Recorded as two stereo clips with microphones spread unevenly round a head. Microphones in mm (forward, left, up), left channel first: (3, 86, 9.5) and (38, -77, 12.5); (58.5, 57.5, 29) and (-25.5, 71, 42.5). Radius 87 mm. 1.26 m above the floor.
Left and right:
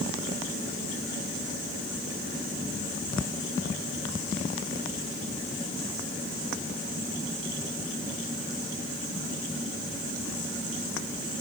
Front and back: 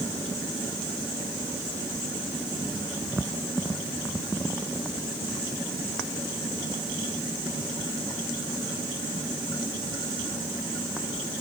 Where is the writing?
I don't hear writing.